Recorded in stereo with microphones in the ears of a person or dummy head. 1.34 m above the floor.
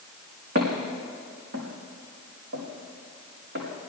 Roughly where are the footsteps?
Right.